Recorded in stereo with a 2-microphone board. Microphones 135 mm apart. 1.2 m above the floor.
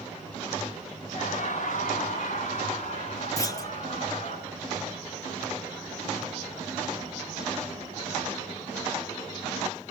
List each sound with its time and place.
1.1 s laughter: 70° left (ahead or behind), 7 m; by 4.4 s 55° left (ahead or behind), 10.5 m
3.4 s a clunk: 25° left (ahead or behind), 0.6 m